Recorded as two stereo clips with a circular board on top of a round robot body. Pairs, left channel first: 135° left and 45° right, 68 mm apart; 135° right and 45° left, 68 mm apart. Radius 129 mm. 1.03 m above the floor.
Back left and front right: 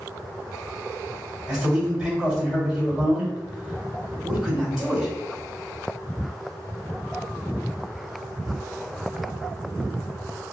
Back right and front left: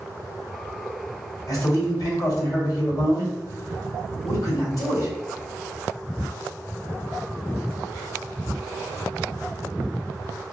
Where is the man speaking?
125° right, 2.0 m.